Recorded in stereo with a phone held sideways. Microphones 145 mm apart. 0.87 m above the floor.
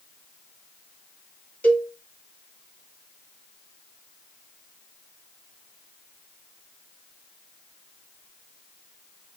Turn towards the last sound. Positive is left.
turn(degrees=10)  # may be behind; listen again after turning